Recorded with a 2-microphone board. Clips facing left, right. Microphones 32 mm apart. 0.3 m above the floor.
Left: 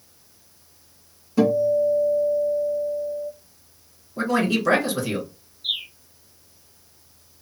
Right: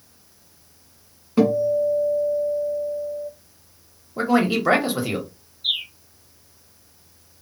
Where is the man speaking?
25° right (ahead or behind), 1.1 m.